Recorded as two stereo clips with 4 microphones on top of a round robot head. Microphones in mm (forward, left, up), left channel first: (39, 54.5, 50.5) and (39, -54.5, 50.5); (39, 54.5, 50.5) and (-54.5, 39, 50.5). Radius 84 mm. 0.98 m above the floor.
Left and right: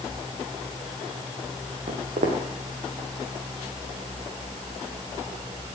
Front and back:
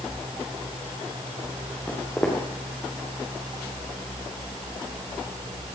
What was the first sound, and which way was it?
Footsteps, 70° right.